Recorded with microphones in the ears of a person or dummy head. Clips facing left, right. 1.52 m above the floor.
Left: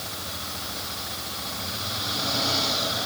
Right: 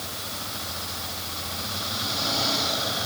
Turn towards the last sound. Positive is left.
No sound to turn to.